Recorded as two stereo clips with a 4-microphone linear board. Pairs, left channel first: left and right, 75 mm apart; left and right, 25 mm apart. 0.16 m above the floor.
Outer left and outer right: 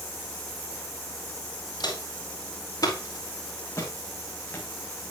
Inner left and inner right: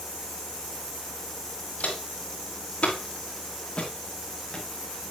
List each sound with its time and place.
1.8 s footsteps: 65° left (ahead or behind), 5 m; by 4.7 s 25° left (ahead or behind), 4 m